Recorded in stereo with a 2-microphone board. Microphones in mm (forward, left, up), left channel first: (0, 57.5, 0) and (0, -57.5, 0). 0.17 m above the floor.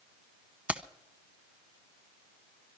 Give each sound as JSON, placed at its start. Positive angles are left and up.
{"t": 0.7, "sound": "keys jangling", "side_deg": -10, "distance_m": 0.7}